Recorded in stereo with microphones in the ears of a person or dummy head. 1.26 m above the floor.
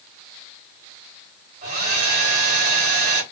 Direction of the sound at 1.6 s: 55° right (ahead or behind).